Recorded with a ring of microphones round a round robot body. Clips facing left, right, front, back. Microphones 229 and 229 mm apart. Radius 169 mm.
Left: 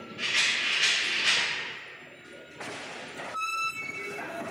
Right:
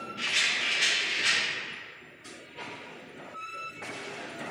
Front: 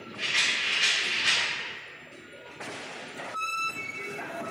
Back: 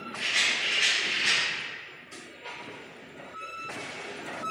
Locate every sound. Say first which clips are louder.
0.2 s a rattle: even, back 1 dB; 115° right, 2.5 m